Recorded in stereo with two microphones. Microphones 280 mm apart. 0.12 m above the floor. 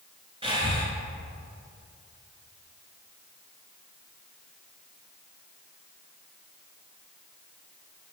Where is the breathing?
20° right (ahead or behind), 1.6 m.